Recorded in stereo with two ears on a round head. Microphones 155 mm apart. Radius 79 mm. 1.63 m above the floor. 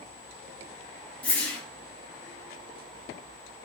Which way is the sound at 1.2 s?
10° left (ahead or behind).